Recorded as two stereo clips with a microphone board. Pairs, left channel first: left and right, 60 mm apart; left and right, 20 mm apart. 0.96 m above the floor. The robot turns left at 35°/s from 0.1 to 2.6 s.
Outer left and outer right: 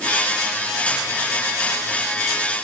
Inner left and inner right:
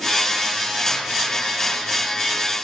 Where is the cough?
No cough in this recording.